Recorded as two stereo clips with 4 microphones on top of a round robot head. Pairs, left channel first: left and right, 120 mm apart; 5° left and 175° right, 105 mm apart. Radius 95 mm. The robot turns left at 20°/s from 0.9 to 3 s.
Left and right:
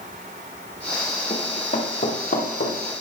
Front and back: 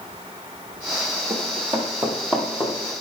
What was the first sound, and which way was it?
Running footsteps, 145° left.